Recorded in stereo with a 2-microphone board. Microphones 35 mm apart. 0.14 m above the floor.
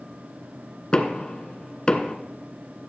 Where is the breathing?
I don't hear breathing.